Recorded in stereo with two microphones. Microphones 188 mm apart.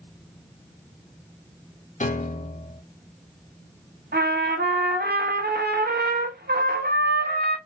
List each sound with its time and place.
2.0 s a piano: 40° left (ahead or behind), 0.5 m
4.1 s a trumpet: 55° right (ahead or behind), 0.8 m